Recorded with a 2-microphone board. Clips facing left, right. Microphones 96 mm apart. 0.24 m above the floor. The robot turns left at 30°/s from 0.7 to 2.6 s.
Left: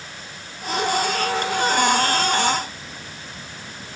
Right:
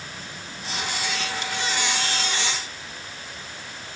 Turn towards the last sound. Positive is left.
turn(degrees=140)